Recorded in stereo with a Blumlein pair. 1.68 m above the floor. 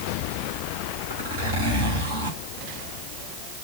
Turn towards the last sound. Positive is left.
turn(degrees=-65)